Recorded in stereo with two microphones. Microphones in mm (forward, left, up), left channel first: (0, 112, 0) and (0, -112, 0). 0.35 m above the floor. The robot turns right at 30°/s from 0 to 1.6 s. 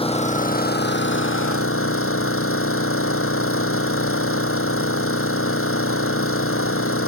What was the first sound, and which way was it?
An engine running, 25° left.